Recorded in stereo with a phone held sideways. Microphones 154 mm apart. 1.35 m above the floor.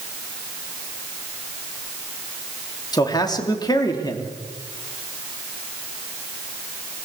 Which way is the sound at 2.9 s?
25° left (ahead or behind).